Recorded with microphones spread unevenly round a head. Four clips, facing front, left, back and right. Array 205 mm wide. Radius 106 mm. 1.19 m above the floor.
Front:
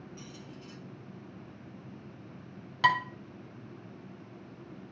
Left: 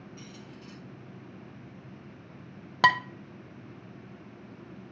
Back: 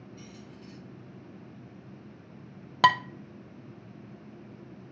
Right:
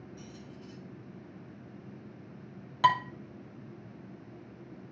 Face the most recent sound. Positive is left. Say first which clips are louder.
# left 1 dB, back 4 dB
turn(degrees=135)